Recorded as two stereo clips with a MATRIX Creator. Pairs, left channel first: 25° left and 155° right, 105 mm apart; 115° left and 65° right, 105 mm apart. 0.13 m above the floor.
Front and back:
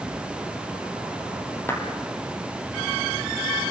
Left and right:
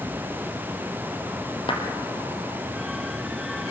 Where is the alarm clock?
I don't hear an alarm clock.